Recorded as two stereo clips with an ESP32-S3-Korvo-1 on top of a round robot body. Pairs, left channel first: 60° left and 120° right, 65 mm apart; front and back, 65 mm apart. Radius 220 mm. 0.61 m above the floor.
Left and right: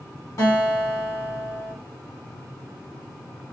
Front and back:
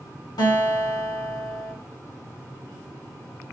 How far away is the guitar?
About 1.7 m.